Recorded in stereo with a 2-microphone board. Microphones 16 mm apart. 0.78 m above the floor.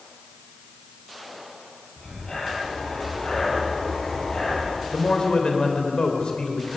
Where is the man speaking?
75° left (ahead or behind), 3 m.